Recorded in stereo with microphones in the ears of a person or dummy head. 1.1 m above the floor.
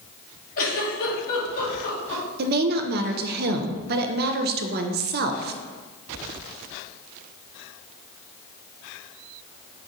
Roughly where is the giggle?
Left.